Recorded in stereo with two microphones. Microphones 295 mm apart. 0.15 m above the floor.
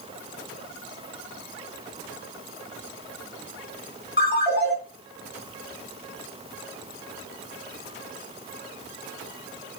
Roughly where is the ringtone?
Left.